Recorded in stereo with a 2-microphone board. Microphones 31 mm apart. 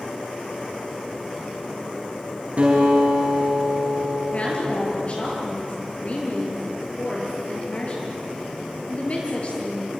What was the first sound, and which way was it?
A guitar, 40° right (ahead or behind).